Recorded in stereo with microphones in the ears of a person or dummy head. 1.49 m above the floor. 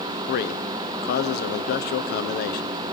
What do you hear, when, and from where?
0.3 s a man speaking: 60° left (ahead or behind), 0.8 m